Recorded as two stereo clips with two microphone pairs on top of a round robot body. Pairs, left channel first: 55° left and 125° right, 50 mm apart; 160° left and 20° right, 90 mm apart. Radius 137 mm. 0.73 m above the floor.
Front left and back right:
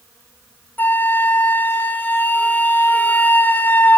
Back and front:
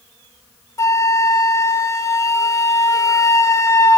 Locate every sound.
0.8 s a flute: 105° left, 1.8 m